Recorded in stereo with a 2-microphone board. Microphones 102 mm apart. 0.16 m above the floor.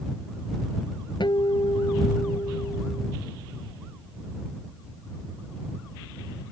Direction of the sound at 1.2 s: 55° left (ahead or behind).